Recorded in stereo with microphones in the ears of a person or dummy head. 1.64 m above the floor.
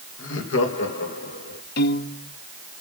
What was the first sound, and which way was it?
Laughter, 75° left (ahead or behind).